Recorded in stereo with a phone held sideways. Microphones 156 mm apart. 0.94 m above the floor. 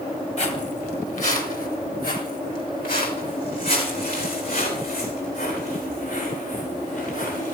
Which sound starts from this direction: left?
Footsteps, at 0.4 s.